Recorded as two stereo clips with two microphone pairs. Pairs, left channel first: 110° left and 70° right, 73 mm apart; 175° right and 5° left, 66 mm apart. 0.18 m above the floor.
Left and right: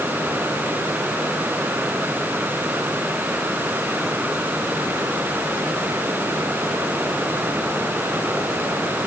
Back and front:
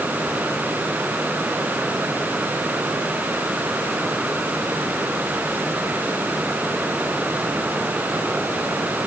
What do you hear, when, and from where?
Only background noise.